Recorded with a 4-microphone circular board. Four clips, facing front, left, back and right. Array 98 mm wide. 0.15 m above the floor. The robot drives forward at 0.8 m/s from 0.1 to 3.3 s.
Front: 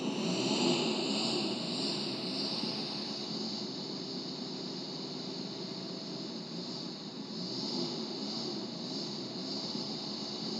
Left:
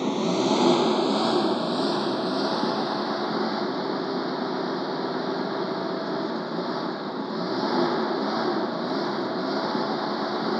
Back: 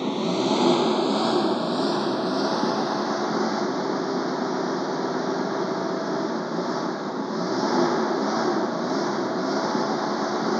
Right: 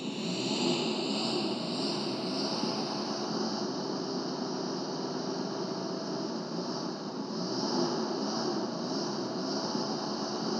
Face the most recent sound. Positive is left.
turn(degrees=150)